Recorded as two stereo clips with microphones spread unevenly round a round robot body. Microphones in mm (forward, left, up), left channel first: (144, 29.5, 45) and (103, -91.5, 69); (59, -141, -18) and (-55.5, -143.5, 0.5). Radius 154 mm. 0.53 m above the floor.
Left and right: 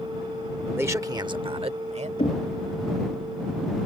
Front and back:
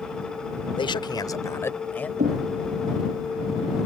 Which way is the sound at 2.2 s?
140° left.